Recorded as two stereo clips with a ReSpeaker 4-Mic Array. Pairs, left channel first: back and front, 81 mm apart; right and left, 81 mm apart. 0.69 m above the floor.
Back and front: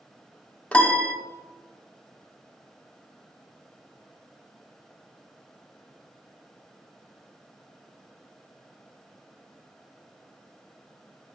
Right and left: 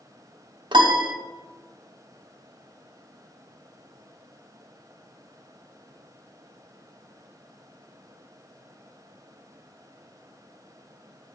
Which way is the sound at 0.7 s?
105° left.